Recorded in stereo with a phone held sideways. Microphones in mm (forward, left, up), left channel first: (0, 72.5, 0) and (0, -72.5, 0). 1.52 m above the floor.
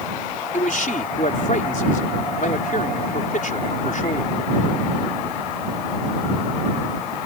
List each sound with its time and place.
0.5 s a man speaking: 65° left (ahead or behind)